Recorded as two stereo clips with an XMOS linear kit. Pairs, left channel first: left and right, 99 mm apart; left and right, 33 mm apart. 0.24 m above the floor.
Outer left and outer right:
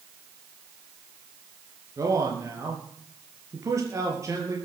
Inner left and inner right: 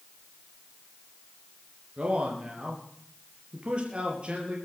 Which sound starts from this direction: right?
A man speaking, at 2.0 s.